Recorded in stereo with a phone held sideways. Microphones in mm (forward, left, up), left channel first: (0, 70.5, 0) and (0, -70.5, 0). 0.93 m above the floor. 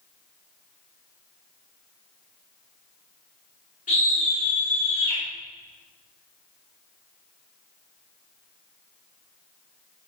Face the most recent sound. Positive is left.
turn(degrees=35)  # may be behind; listen again after turning